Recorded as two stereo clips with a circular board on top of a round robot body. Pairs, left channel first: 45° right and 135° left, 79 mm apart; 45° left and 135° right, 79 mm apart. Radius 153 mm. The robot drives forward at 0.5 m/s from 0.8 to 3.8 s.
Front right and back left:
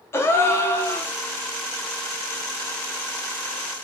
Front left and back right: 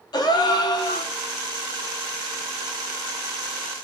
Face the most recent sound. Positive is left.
turn(degrees=155)